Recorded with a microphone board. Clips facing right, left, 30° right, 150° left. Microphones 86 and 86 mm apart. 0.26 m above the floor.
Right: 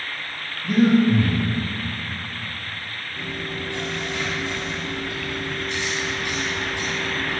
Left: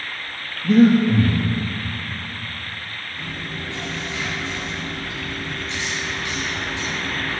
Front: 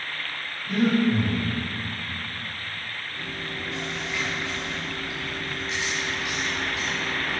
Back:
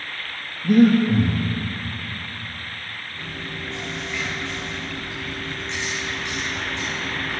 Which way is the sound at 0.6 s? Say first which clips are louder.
Left 3 dB, back 7 dB; 150° left.